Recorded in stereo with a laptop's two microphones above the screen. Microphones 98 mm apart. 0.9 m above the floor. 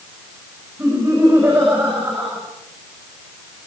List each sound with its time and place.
0.8 s laughter: 25° right (ahead or behind), 6 m